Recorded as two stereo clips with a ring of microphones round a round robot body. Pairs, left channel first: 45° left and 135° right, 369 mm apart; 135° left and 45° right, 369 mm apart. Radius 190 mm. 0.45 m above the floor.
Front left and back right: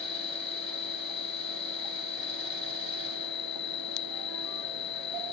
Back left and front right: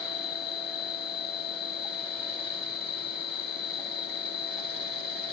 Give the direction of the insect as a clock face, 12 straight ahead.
9 o'clock.